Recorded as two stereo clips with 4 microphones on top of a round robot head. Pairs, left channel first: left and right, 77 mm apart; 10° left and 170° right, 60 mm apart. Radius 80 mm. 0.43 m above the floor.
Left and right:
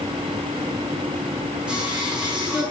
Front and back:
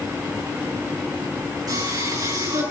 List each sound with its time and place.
1.7 s singing: 170° right, 8 m